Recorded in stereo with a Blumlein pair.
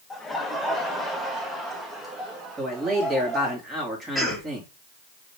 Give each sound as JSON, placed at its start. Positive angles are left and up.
{"t": 0.1, "sound": "laughter", "azimuth_deg": 10, "distance_m": 1.4}
{"t": 2.6, "sound": "a man speaking", "azimuth_deg": -15, "distance_m": 2.5}
{"t": 4.2, "sound": "a cough", "azimuth_deg": -5, "distance_m": 2.5}